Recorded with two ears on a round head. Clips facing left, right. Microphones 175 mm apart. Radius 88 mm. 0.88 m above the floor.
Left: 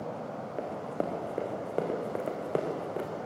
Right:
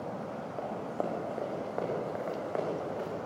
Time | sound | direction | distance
0.6 | running footsteps | 25° left (ahead or behind) | 4 m